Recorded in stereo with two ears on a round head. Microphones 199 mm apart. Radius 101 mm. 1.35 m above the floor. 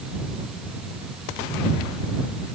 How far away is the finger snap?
No finger snap in this recording.